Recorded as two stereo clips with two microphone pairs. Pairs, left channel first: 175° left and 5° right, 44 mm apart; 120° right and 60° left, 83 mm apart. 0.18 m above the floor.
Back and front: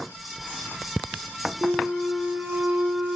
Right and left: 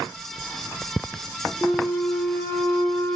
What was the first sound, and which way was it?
A flute, 45° right.